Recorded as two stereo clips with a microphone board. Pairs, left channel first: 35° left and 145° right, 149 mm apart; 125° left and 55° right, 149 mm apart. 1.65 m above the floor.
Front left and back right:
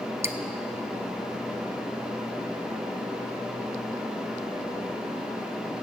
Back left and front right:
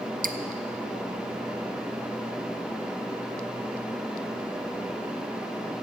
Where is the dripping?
75° right, 0.6 m.